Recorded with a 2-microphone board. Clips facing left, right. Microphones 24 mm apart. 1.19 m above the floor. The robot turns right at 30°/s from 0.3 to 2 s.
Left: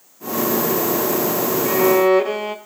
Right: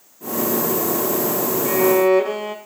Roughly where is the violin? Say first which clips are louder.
Left 1 dB; centre.